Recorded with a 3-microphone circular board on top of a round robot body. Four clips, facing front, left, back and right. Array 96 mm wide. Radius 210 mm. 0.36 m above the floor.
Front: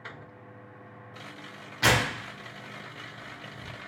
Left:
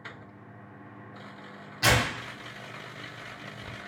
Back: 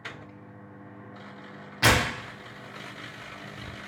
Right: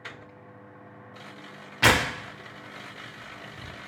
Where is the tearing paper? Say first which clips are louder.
Right 3 dB, back 2 dB; 95° right, 0.9 m.